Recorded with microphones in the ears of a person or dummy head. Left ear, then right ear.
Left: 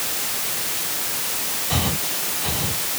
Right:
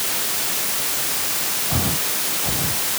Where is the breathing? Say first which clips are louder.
Even; 70° left (ahead or behind).